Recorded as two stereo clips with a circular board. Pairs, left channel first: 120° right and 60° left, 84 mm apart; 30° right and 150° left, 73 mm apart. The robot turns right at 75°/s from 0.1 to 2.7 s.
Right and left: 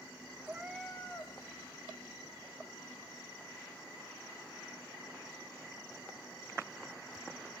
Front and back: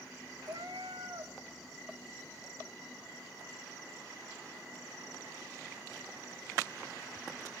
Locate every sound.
0.5 s a cat meowing: 125° left, 1.9 m; by 1.3 s 170° right, 1.9 m